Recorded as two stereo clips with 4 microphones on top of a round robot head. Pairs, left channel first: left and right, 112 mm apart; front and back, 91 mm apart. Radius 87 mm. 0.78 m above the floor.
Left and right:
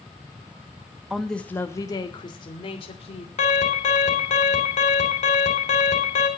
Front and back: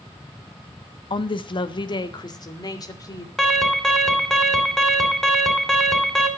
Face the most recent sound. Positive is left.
turn(degrees=85)